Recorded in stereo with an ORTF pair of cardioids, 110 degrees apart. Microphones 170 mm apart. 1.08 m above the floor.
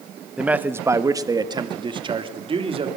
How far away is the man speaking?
About 1.1 m.